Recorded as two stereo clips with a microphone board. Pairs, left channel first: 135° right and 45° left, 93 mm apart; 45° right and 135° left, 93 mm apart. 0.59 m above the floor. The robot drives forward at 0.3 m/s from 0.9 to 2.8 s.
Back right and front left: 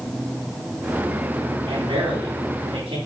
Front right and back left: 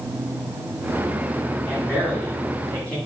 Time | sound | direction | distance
1.7 | a man speaking | 25° left | 4.5 m